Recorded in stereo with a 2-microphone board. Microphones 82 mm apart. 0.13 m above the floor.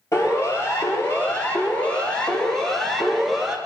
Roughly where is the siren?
Left.